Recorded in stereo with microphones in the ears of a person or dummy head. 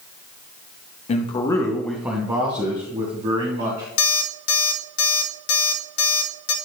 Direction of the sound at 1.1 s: 40° left (ahead or behind).